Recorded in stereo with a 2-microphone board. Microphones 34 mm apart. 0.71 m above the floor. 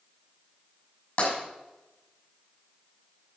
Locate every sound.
1.2 s tapping: 45° left (ahead or behind), 6 m